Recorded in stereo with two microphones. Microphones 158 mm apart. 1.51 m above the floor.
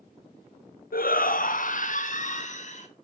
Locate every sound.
0.9 s a shout: 70° left (ahead or behind), 0.6 m; by 2.9 s 50° left (ahead or behind), 1.5 m